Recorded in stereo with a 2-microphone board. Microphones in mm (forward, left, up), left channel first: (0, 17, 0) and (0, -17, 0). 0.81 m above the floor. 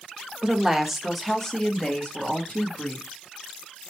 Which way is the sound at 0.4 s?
20° right (ahead or behind).